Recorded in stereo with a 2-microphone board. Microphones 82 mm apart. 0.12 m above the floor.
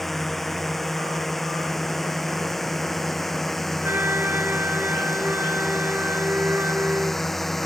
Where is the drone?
Centre (ahead or behind).